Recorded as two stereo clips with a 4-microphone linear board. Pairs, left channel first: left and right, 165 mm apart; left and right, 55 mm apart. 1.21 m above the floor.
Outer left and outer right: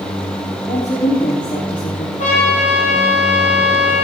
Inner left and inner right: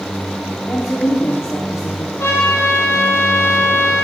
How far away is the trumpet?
About 8.5 m.